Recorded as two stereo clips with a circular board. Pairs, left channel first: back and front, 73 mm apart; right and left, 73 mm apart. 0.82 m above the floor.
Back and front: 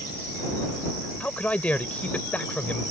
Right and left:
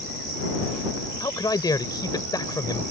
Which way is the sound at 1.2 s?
110° right.